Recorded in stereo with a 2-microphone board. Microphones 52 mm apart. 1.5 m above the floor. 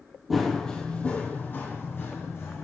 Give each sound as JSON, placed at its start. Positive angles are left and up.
{"t": 0.3, "sound": "running footsteps", "side_deg": 0, "distance_m": 1.9}